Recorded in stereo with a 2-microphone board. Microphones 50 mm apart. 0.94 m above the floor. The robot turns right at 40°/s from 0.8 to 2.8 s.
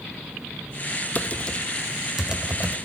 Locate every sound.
1.1 s typing on a keyboard: 30° left (ahead or behind), 0.6 m; by 2.8 s 30° right (ahead or behind), 0.6 m